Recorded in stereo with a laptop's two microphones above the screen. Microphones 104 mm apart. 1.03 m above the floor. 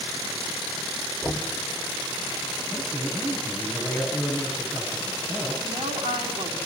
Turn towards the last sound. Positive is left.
turn(degrees=-90)